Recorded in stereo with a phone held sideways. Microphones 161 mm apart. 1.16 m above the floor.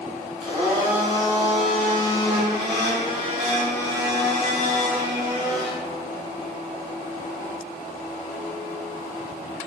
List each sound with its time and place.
0.4 s a blender: 5° right (ahead or behind), 1.4 m